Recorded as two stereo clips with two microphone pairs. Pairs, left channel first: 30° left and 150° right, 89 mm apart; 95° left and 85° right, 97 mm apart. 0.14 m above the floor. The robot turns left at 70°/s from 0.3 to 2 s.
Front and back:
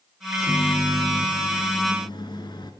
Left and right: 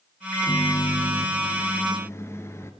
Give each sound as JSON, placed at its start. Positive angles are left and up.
{"t": 0.3, "sound": "a microwave", "azimuth_deg": 155, "distance_m": 1.4}